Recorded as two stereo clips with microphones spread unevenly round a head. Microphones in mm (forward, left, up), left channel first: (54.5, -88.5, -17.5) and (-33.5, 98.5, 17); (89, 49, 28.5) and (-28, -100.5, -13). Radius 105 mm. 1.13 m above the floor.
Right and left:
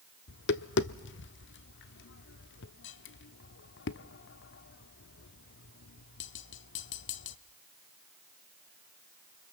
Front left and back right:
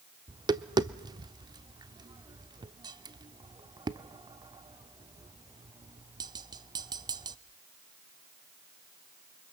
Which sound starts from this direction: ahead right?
Tapping, at 0.3 s.